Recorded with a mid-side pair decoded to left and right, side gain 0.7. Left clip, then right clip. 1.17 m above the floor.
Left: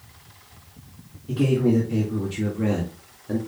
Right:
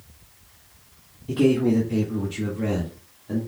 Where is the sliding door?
No sliding door in this recording.